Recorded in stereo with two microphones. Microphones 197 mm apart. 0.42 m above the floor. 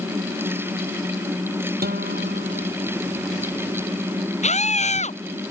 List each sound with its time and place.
1.8 s a guitar: 50° right (ahead or behind)
4.4 s a scream: 35° left (ahead or behind)